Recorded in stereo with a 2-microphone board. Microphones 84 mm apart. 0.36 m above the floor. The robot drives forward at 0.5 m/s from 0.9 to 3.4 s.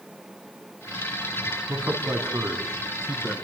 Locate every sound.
1.7 s a man speaking: 35° right (ahead or behind), 4 m; by 3.4 s 30° right (ahead or behind), 5 m